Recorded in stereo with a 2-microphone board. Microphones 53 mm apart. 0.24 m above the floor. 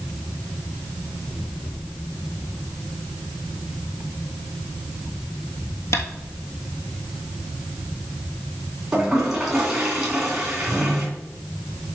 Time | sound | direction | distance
5.9 | tapping | 65° left (ahead or behind) | 1.5 m
8.9 | a toilet flushing | 10° right (ahead or behind) | 2.5 m